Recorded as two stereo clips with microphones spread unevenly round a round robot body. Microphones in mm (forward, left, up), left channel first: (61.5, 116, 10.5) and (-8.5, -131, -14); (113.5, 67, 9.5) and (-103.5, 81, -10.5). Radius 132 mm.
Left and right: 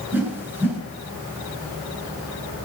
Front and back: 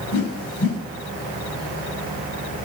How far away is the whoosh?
About 5.5 m.